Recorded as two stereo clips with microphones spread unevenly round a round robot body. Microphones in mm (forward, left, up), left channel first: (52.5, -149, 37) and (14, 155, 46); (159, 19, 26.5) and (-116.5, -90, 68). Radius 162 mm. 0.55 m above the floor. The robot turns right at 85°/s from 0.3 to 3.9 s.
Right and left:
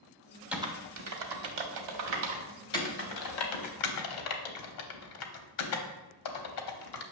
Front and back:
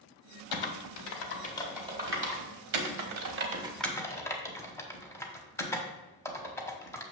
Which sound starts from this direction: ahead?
Typing on a keyboard, at 0.5 s.